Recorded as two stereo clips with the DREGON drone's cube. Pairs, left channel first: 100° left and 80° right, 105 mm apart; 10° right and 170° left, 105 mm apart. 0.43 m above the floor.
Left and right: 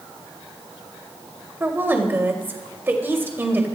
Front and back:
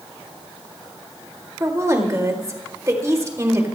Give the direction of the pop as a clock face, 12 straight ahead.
I don't hear a pop.